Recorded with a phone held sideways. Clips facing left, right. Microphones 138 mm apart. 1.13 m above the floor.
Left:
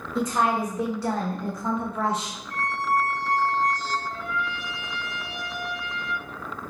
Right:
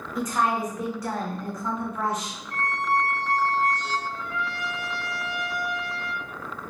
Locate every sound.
0.1 s a woman speaking: 25° left (ahead or behind), 1.8 m
2.5 s a squeak: 5° right (ahead or behind), 2.0 m
4.1 s a trumpet: 60° left (ahead or behind), 0.8 m